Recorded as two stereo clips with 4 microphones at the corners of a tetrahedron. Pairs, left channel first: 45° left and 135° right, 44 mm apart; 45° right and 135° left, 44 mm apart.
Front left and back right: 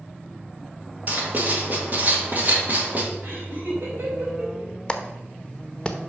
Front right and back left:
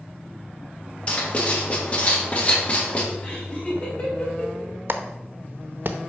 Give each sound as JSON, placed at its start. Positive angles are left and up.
{"t": 1.1, "sound": "writing", "azimuth_deg": -100, "distance_m": 1.7}
{"t": 3.2, "sound": "laughter", "azimuth_deg": -95, "distance_m": 4.0}
{"t": 4.9, "sound": "a clap", "azimuth_deg": 110, "distance_m": 0.8}